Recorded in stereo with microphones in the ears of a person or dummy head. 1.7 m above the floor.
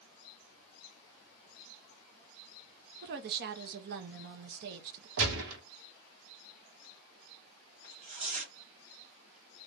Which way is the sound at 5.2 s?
65° right (ahead or behind).